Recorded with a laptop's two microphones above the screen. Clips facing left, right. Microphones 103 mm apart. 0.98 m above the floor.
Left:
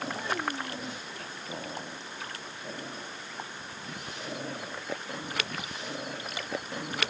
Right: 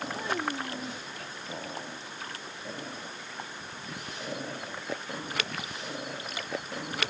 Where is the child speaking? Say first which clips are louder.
Right 1 dB; 10° right (ahead or behind).